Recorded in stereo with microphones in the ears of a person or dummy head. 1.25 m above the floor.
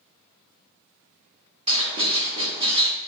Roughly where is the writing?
Right.